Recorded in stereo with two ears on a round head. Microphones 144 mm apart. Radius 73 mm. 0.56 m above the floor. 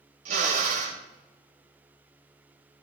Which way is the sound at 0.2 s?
55° right (ahead or behind).